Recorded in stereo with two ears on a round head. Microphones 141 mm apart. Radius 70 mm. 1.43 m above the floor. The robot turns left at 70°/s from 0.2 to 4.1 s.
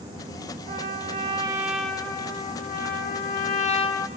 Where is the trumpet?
100° right, 0.9 m; by 4.1 s 20° left, 0.9 m.